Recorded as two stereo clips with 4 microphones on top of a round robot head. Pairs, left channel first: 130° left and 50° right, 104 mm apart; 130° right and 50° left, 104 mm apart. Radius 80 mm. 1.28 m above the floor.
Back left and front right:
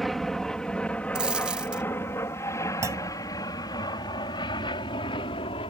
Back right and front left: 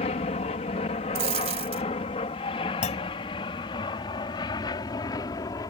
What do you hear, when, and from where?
0.0 s an aircraft: 140° right; by 5.7 s 170° left
1.1 s a dropped coin: 35° left
2.8 s a clunk: 110° right